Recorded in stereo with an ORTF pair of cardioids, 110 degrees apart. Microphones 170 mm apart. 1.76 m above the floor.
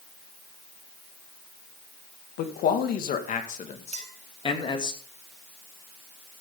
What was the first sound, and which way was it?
A man speaking, 70° left.